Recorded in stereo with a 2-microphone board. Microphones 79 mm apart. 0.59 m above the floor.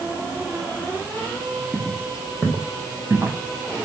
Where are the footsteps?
5° right (ahead or behind), 1.0 m; by 3.4 s 20° right (ahead or behind), 2.5 m.